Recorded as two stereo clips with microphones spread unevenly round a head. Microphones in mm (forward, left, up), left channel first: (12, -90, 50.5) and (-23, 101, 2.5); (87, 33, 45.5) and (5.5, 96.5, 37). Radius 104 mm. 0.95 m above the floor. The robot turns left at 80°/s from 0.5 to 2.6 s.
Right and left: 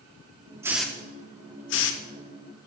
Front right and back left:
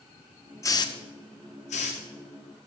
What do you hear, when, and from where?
0.6 s a hiss: 20° left, 0.7 m; by 2.0 s 90° right, 0.7 m